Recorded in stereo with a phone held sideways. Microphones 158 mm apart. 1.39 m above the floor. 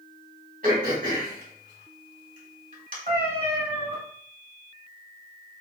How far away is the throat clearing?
About 1.6 m.